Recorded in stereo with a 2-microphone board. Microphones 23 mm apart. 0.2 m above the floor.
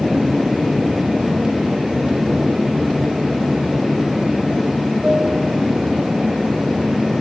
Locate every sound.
0.0 s an aircraft: 25° right (ahead or behind); by 7.2 s 45° right (ahead or behind)